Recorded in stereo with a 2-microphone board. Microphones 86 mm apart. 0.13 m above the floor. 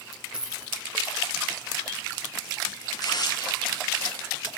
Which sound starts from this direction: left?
Tearing paper, at 2.9 s.